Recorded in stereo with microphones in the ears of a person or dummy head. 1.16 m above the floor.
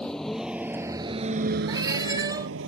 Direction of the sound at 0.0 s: 10° left (ahead or behind).